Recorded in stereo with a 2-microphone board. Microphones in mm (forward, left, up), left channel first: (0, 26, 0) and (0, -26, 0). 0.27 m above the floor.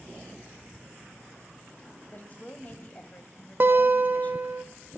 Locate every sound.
2.1 s a woman speaking: 35° left (ahead or behind), 1.2 m
3.6 s a guitar: 45° right (ahead or behind), 0.6 m